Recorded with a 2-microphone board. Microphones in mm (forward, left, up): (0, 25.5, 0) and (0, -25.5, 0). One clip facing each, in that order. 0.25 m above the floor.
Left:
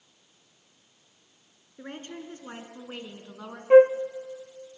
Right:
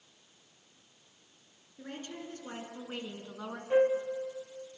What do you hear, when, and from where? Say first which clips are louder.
1.8 s a woman speaking: left 3 dB; 40° left (ahead or behind), 3 m; by 3.6 s 5° right (ahead or behind), 2.5 m
3.7 s a flute: left 11 dB; 70° left (ahead or behind), 0.5 m